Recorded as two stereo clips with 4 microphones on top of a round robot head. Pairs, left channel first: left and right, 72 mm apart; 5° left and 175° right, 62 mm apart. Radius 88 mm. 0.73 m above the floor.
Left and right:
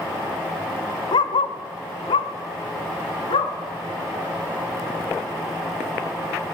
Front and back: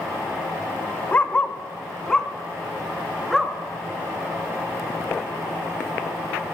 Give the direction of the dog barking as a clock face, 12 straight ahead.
10 o'clock.